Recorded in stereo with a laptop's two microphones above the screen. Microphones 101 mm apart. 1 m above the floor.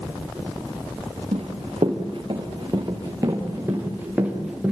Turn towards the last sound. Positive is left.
turn(degrees=-5)  # may be behind; listen again after turning